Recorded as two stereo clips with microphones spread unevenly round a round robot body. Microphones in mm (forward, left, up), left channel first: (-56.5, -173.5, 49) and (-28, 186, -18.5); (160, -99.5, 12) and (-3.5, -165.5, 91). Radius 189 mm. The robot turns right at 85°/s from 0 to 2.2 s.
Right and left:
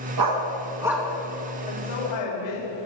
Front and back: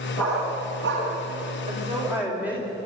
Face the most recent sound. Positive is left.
turn(degrees=-75)